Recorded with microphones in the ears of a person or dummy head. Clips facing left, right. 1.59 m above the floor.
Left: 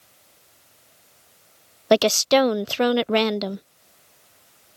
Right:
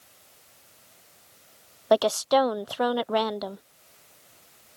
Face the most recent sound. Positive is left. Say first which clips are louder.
# left 4 dB
turn(degrees=35)  # may be behind; listen again after turning